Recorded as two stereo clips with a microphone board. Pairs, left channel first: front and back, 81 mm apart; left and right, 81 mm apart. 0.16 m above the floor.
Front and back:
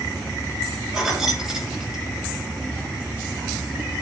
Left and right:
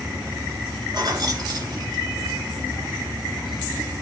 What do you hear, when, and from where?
0.9 s keys jangling: 100° right, 1.6 m